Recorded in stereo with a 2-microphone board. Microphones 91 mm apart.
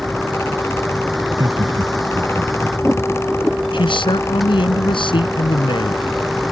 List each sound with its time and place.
0.0 s a vehicle: centre (ahead or behind)
1.2 s laughter: 65° right (ahead or behind)
3.7 s a man speaking: 65° left (ahead or behind)